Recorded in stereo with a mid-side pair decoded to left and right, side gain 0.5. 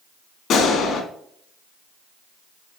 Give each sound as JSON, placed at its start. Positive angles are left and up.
{"t": 0.5, "sound": "a gunshot", "azimuth_deg": 65, "distance_m": 2.5}